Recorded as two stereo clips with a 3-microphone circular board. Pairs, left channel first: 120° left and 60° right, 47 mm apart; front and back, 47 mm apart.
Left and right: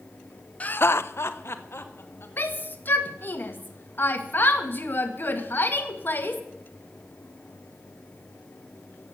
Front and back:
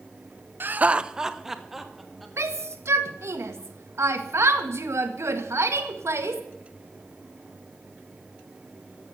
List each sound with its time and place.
0.6 s laughter: 170° left, 0.5 m; by 2.3 s 95° left, 2.5 m
2.4 s a shout: 165° left, 1.9 m